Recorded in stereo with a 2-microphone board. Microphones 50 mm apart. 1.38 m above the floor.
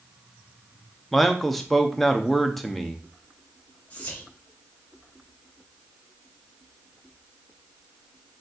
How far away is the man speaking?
About 0.6 m.